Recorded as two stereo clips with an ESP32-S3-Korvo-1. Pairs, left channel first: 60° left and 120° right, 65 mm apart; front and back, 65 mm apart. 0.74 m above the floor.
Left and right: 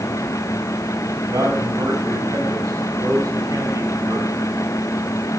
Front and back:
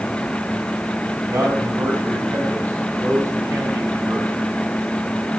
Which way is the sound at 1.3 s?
140° right.